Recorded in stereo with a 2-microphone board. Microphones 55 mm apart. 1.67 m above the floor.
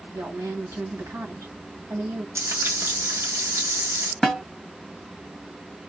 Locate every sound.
0.1 s a woman speaking: 65° right (ahead or behind), 1.7 m
2.4 s frying: 50° right (ahead or behind), 1.3 m
4.2 s a snare drum: 5° left (ahead or behind), 2 m